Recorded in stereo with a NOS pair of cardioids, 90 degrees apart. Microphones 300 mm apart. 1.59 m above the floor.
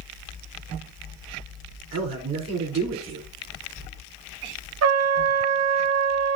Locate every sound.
1.9 s a man speaking: 55° right, 5.5 m
4.8 s a trumpet: 55° right, 1.4 m